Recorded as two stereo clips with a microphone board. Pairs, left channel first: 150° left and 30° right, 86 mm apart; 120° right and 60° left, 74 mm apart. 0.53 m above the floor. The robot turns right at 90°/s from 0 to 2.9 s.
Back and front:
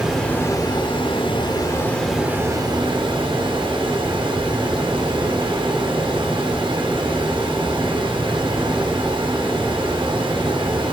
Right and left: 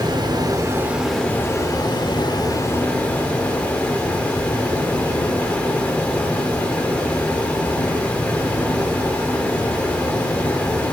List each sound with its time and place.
0.0 s running water: 50° left, 1.1 m; by 10.9 s 50° right, 1.1 m